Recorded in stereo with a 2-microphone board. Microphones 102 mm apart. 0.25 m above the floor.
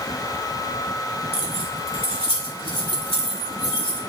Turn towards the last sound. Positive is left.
turn(degrees=65)  # may be behind; listen again after turning